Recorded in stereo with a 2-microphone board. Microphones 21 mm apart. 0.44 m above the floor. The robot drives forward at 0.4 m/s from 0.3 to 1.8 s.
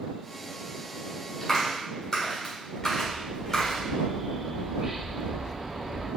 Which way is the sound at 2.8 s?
25° right (ahead or behind).